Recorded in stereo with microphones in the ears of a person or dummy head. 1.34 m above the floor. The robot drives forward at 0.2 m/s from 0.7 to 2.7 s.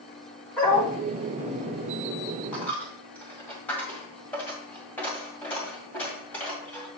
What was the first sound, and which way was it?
A dog barking, 10° left (ahead or behind).